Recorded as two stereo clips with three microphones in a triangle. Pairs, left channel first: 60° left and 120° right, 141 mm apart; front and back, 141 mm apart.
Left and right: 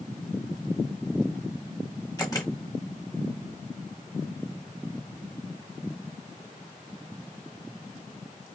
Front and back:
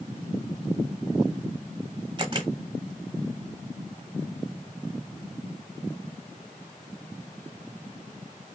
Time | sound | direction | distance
2.2 | a camera shutter | 125° left | 1.0 m